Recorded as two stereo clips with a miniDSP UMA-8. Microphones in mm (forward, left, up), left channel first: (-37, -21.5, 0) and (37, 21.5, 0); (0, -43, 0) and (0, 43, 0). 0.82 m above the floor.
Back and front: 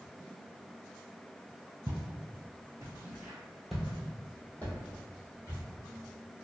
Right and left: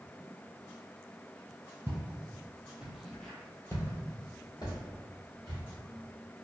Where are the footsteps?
50° left, 1.2 m; by 5.6 s 95° right, 1.7 m.